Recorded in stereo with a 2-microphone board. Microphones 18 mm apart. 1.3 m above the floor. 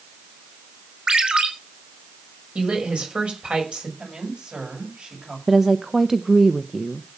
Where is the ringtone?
60° right (ahead or behind), 5 m.